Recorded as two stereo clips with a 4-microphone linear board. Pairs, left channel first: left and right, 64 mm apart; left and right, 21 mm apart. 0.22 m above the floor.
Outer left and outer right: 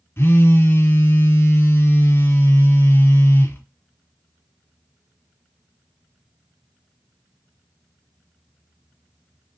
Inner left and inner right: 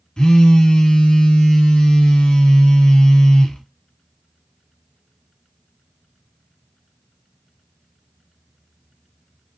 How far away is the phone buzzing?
About 0.7 m.